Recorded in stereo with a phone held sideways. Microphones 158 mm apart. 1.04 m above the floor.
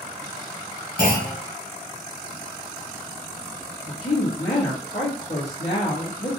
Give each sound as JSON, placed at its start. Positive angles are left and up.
{"t": 1.0, "sound": "a clunk", "side_deg": 75, "distance_m": 2.5}
{"t": 3.9, "sound": "a woman speaking", "side_deg": 45, "distance_m": 1.8}